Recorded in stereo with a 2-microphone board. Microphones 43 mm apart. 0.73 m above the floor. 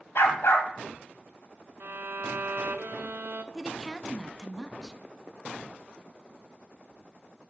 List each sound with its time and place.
0.1 s a dog barking: 65° left (ahead or behind), 1.6 m
1.8 s a violin: 50° right (ahead or behind), 0.7 m
3.5 s a woman speaking: 5° left (ahead or behind), 0.6 m